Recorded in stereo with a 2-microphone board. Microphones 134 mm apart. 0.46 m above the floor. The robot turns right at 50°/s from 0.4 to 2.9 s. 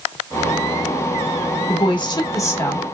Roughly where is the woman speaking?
Left.